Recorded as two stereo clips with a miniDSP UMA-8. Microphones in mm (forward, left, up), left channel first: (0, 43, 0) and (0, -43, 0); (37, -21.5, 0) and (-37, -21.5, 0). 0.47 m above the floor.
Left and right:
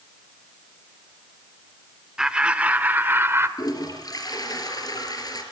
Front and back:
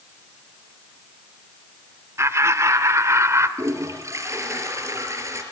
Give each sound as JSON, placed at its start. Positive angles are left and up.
{"t": 2.2, "sound": "laughter", "azimuth_deg": -170, "distance_m": 1.5}
{"t": 3.6, "sound": "a toilet flushing", "azimuth_deg": 130, "distance_m": 3.5}